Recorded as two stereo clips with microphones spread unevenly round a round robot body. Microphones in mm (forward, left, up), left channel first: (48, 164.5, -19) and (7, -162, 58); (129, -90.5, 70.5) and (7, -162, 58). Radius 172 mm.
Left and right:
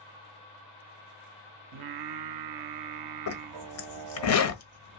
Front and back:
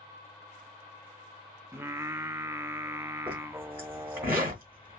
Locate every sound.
1.7 s singing: 80° right, 0.6 m
3.3 s a zipper: 130° left, 1.1 m